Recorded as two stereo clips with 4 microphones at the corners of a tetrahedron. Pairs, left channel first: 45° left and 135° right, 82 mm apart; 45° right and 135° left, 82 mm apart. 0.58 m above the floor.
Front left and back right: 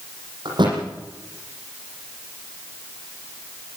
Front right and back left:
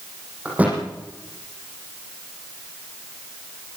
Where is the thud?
150° right, 7.5 m.